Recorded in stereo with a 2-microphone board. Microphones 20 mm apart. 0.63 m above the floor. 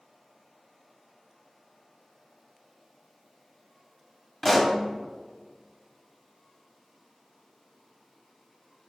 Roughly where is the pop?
Centre.